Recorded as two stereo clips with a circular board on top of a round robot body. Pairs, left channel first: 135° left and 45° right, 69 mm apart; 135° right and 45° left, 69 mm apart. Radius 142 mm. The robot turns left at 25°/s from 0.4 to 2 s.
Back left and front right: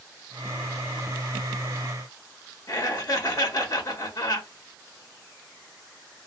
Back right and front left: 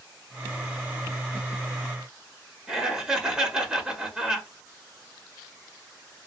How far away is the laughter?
About 1.1 m.